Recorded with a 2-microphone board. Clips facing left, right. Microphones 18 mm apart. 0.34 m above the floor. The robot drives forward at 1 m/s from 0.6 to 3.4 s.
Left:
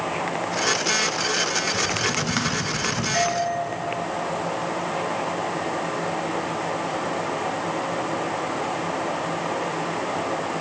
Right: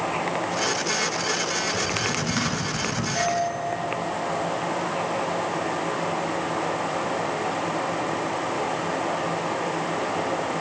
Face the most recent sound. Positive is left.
turn(degrees=75)  # may be behind; listen again after turning